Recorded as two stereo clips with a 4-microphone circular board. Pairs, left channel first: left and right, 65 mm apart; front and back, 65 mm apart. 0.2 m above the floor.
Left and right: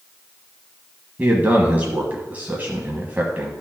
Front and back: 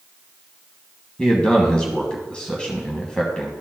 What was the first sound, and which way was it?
A man speaking, 60° right.